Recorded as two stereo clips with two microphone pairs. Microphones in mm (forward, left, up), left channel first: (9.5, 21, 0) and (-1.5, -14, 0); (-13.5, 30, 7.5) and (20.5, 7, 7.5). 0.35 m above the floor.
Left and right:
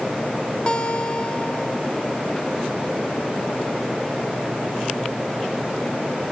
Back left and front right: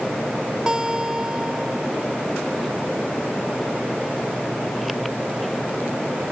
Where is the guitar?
30° left, 0.7 m.